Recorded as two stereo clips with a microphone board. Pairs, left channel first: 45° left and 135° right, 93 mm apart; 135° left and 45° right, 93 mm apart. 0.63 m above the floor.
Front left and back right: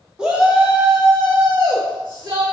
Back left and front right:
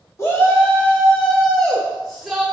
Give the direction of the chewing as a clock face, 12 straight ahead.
No chewing in this recording.